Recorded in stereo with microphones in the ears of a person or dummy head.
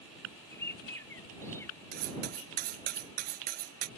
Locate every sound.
0.5 s a bird: 15° left (ahead or behind)
1.9 s cutlery clinking: 55° right (ahead or behind)